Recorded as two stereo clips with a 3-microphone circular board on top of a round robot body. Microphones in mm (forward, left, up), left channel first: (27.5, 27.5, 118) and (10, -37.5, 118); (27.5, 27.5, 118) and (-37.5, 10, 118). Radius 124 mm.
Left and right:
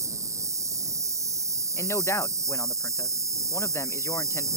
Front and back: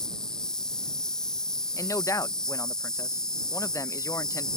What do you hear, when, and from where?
0.0 s an insect: 65° right
1.8 s a man speaking: 35° left